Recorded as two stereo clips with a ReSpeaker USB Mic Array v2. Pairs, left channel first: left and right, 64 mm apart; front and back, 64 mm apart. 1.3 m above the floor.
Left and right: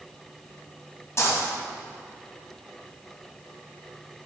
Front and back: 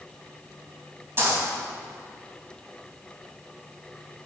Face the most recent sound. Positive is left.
turn(degrees=130)